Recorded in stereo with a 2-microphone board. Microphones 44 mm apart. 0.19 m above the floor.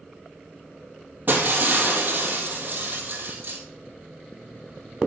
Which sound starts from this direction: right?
Breaking glass, at 1.3 s.